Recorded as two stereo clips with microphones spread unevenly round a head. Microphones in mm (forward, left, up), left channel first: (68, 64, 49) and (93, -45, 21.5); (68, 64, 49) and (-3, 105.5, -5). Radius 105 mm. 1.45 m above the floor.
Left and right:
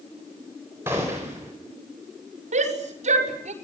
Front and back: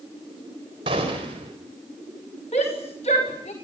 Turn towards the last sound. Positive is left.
turn(degrees=-80)